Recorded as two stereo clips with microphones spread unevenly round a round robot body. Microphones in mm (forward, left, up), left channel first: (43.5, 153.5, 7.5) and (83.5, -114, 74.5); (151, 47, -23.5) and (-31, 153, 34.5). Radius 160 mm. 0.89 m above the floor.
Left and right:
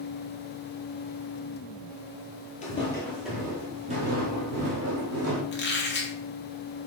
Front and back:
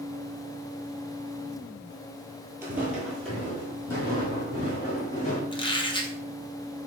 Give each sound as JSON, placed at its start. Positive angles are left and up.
{"t": 2.6, "sound": "footsteps", "azimuth_deg": 175, "distance_m": 0.9}
{"t": 5.5, "sound": "a squeak", "azimuth_deg": 45, "distance_m": 1.1}